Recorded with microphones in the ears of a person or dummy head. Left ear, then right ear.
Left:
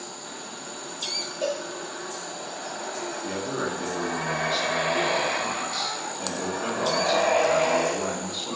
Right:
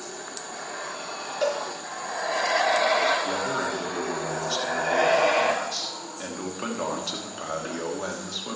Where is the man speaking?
75° right (ahead or behind), 3 m.